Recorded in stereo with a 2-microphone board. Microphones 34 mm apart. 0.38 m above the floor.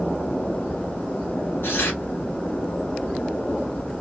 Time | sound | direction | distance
1.6 | tearing paper | 90° left | 1.8 m